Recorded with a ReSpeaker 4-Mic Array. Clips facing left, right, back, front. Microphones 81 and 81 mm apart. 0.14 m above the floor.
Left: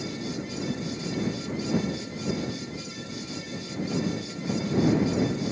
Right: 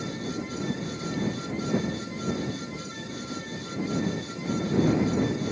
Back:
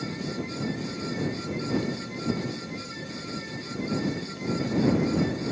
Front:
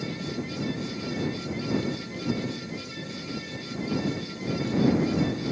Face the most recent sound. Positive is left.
No sound to turn to.